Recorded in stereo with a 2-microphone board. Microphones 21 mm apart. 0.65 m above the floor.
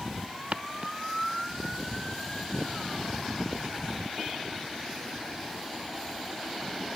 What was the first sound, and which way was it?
Footsteps, 55° right (ahead or behind).